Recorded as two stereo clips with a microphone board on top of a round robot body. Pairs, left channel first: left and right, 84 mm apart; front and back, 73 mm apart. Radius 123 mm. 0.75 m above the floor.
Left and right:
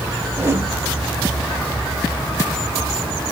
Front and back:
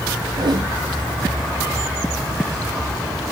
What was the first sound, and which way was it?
A whoosh, 155° right.